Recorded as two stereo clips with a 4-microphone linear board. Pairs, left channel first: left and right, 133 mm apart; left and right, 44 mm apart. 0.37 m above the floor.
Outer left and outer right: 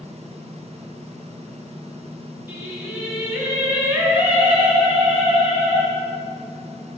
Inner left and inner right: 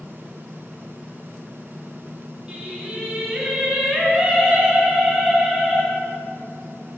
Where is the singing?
20° right (ahead or behind), 2 m.